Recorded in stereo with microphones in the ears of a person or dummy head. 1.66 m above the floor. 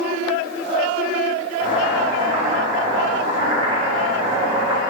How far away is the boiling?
About 3.5 m.